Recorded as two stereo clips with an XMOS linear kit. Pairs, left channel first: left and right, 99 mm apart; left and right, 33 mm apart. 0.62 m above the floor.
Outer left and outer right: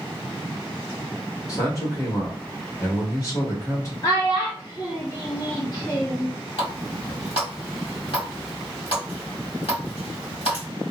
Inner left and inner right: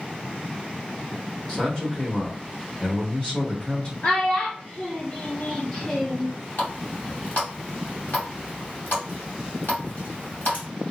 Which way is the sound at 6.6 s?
75° left (ahead or behind).